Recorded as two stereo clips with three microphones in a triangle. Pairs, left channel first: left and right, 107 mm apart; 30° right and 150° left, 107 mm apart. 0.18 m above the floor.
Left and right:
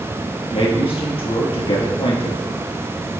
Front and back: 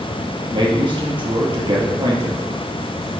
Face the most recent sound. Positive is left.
turn(degrees=115)